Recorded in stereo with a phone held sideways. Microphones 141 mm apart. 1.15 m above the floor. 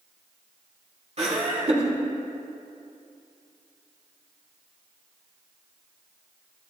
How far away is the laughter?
About 3 m.